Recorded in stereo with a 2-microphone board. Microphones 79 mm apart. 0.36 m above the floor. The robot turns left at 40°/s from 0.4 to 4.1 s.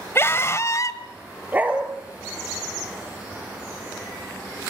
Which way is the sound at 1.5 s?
25° right (ahead or behind).